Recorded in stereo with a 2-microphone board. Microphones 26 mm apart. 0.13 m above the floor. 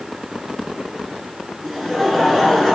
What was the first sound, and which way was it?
Laughter, 15° left (ahead or behind).